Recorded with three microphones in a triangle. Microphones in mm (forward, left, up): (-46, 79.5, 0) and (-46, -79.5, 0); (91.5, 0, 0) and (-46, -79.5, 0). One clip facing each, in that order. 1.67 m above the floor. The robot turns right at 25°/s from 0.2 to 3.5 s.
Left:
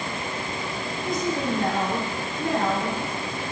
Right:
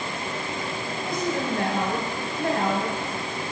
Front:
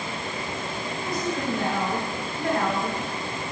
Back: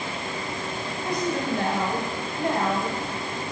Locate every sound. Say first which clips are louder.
1.0 s a woman speaking: left 1 dB, back 2 dB; 125° right, 1.7 m; by 3.0 s 75° right, 1.7 m